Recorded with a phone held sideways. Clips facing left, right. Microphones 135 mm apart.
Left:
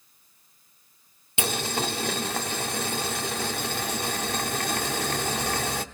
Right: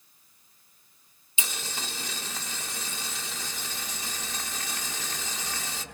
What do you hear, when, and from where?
1.4 s boiling: 65° left (ahead or behind), 1.2 m